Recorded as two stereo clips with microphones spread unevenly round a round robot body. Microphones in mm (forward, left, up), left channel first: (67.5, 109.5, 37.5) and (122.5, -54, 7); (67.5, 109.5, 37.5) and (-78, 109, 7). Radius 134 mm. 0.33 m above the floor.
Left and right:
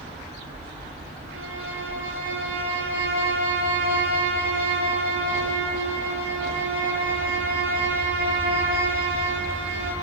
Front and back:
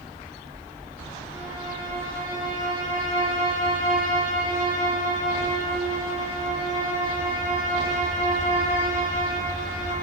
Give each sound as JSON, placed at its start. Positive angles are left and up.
{"t": 1.3, "sound": "a violin", "azimuth_deg": -100, "distance_m": 8.0}